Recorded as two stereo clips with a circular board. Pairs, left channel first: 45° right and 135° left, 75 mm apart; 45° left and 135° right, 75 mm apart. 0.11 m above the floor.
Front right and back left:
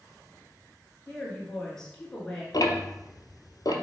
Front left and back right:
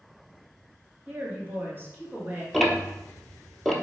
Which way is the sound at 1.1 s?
115° right.